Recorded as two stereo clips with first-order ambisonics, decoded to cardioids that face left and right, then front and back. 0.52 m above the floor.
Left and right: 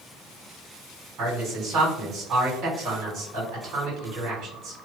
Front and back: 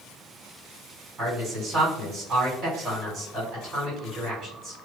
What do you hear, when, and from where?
1.2 s a man speaking: 125° right, 1.9 m